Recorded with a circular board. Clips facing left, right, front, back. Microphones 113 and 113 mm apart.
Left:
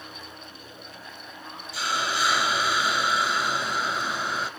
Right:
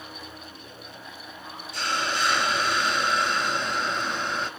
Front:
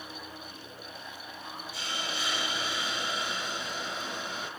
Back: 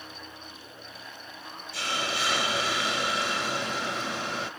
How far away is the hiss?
About 0.5 m.